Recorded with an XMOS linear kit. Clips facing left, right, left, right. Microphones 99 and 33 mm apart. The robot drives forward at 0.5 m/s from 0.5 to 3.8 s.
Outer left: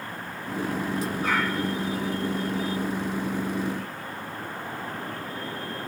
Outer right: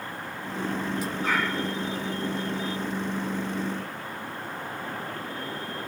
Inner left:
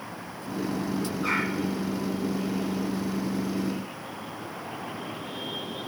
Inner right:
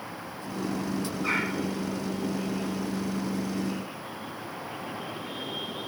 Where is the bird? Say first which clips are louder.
Outer left 1 dB, inner left 1 dB; 60° left (ahead or behind), 9.5 m; by 1.5 s 65° left (ahead or behind), 9.5 m.